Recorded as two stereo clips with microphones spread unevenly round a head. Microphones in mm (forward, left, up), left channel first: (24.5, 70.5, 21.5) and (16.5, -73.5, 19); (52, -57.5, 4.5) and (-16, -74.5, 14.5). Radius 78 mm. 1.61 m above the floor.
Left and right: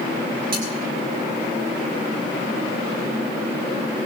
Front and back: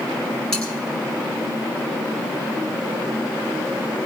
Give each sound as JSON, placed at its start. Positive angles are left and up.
{"t": 0.5, "sound": "cutlery clinking", "azimuth_deg": -70, "distance_m": 10.0}